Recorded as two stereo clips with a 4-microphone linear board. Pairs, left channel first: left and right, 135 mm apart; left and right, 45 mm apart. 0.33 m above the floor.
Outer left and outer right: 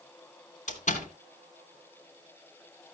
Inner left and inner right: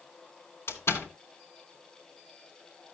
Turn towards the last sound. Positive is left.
turn(degrees=70)  # may be behind; listen again after turning